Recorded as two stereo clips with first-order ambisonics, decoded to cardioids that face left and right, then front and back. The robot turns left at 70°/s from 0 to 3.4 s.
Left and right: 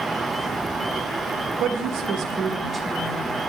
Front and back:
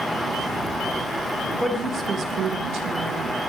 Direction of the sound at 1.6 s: 95° right.